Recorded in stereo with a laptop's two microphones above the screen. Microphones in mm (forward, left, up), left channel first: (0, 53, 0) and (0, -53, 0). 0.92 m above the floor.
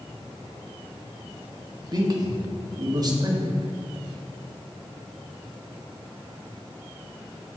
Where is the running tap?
I don't hear a running tap.